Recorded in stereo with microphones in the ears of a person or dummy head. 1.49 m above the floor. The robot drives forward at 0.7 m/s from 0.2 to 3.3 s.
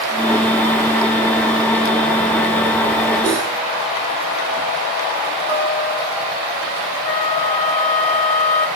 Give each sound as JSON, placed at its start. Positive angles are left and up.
{"t": 3.2, "sound": "cutlery clinking", "side_deg": 5, "distance_m": 5.0}
{"t": 5.5, "sound": "a guitar", "side_deg": -10, "distance_m": 2.5}
{"t": 7.0, "sound": "a flute", "side_deg": 35, "distance_m": 0.6}